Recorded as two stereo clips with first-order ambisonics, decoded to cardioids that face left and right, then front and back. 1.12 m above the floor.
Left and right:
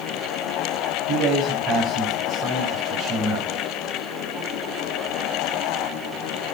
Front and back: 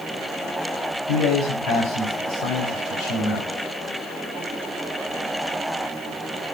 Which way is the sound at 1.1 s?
45° right.